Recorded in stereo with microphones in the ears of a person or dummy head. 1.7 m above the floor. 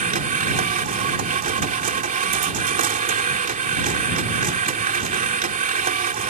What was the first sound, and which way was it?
A machine running, 40° right (ahead or behind).